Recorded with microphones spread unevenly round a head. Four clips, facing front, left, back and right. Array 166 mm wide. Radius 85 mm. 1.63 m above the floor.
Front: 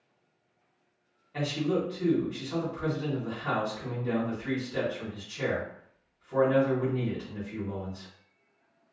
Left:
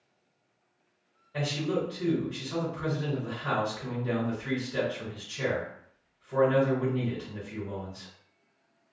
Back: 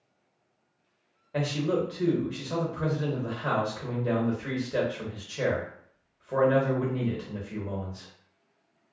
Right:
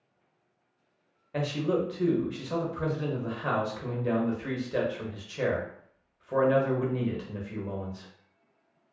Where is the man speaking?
140° right, 1.0 m.